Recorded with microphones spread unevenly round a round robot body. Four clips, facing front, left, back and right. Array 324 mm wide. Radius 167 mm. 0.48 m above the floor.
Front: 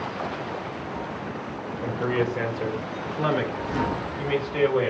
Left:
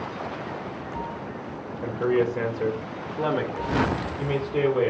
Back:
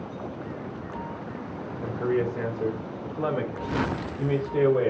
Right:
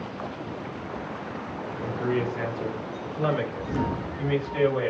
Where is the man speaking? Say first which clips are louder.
Left 5 dB, front 1 dB; 80° left, 2.5 m; by 4.9 s 135° left, 2 m.